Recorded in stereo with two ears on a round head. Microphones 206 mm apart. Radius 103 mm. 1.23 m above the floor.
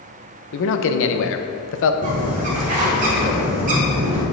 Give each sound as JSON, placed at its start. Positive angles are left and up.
{"t": 0.5, "sound": "a man speaking", "side_deg": 55, "distance_m": 0.6}
{"t": 2.0, "sound": "a bird", "side_deg": -35, "distance_m": 1.5}